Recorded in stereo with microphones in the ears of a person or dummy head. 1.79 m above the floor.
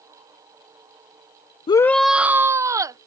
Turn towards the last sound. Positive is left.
turn(degrees=-15)  # may be behind; listen again after turning